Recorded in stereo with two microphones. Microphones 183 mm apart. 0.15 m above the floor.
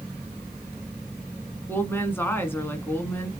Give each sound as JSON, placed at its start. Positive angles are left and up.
{"t": 1.7, "sound": "a woman speaking", "side_deg": 10, "distance_m": 1.3}